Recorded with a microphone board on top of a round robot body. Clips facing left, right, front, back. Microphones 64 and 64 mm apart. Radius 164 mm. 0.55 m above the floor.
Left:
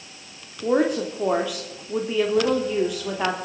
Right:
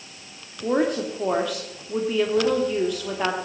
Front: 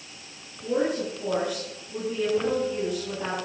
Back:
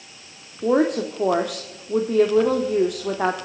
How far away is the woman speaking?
About 1.8 m.